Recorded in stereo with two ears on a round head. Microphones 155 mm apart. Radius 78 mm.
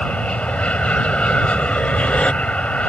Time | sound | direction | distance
0.0 | an aircraft | 5° left (ahead or behind) | ?